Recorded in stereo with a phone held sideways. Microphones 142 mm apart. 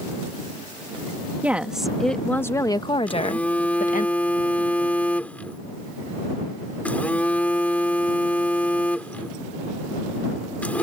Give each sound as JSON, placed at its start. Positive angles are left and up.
{"t": 1.4, "sound": "a woman speaking", "side_deg": -10}
{"t": 3.1, "sound": "a phone buzzing", "side_deg": 10}